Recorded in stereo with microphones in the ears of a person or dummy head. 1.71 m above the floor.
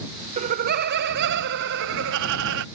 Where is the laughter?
40° right (ahead or behind); by 2.6 s 70° right (ahead or behind).